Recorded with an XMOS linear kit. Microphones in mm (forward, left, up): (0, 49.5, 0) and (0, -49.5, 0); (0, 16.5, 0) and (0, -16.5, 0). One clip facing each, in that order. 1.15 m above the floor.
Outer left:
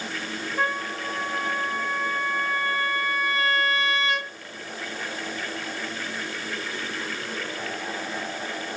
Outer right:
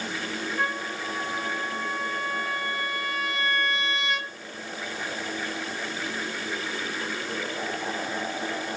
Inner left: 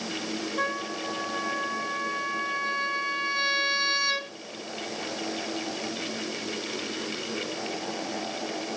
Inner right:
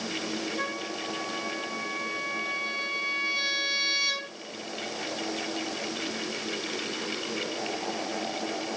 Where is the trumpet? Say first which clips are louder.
Outer left 5 dB, inner left 3 dB; centre (ahead or behind), 8 m.